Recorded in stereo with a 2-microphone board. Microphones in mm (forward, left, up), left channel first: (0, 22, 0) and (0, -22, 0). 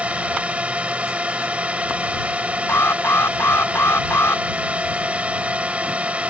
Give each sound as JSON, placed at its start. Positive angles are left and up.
{"t": 0.0, "sound": "a drone", "side_deg": -30}
{"t": 2.7, "sound": "an alarm", "side_deg": 70}